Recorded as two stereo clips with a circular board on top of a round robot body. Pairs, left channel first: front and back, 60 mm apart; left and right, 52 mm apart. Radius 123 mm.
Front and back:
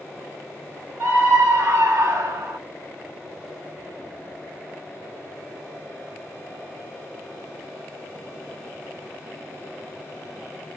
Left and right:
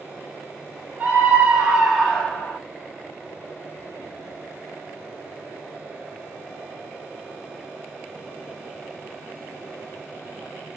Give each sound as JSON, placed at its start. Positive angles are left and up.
{"t": 1.0, "sound": "a scream", "azimuth_deg": -150, "distance_m": 1.3}